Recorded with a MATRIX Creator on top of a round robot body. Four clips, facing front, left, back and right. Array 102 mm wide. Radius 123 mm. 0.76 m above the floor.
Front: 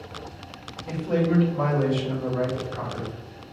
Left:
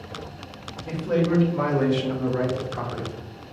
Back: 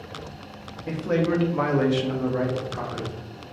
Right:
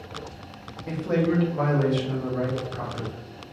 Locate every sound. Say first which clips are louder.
0.9 s a man speaking: left 1 dB, back 1 dB; 155° right, 1.2 m; by 3.1 s 105° left, 1.2 m